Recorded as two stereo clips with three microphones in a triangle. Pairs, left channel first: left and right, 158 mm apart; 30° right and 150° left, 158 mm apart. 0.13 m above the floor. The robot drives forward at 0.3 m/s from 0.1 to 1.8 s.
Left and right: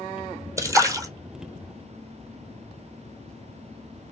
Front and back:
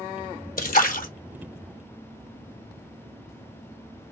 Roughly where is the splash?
Ahead.